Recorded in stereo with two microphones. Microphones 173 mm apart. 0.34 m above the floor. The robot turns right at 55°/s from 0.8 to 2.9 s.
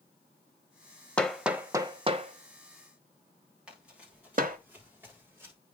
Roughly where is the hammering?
Centre.